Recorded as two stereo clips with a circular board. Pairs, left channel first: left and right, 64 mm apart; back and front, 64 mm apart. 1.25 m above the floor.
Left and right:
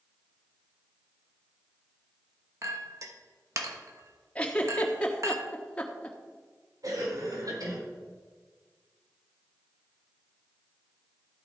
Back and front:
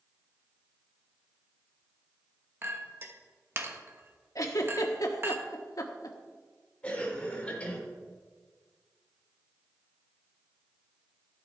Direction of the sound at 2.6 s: 55° right.